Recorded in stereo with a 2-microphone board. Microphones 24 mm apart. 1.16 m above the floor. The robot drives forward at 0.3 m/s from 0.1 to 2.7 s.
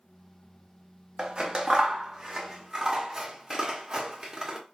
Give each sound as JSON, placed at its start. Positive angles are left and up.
{"t": 1.2, "sound": "scissors", "side_deg": -25, "distance_m": 0.6}